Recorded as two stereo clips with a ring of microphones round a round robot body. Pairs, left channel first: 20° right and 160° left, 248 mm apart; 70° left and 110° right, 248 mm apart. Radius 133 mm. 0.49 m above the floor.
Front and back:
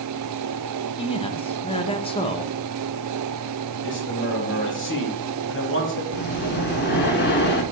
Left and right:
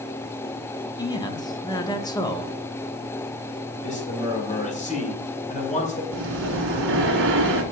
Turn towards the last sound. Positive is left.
turn(degrees=-70)